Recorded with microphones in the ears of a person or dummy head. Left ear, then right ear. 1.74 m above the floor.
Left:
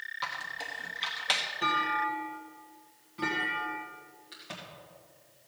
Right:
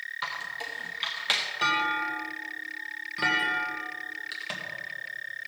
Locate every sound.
0.2 s a squeak: centre (ahead or behind), 0.7 m
1.6 s a clunk: 50° right (ahead or behind), 1.9 m
4.3 s a crack: 45° right (ahead or behind), 2 m